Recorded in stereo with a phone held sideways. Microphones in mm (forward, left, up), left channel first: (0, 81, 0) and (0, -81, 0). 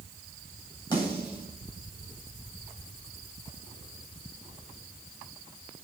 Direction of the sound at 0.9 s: 25° left (ahead or behind).